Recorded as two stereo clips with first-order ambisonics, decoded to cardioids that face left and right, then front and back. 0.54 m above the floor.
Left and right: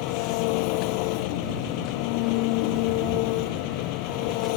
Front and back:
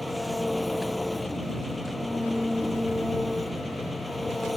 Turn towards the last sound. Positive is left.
turn(degrees=85)